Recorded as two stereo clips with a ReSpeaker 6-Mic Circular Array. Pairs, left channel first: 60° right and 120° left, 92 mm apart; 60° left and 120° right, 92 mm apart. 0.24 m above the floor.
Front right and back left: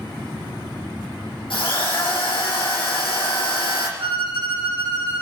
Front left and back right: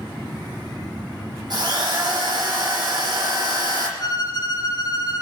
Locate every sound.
1.5 s a drill: 85° right, 4 m
4.0 s a violin: 105° left, 3 m